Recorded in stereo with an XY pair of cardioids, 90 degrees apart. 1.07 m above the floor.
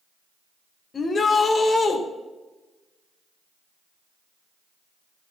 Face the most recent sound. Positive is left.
turn(degrees=45)